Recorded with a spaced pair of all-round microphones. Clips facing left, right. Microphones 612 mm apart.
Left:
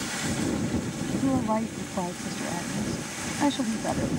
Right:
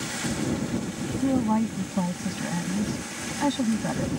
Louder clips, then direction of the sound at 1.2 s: Right 3 dB; 40° right (ahead or behind).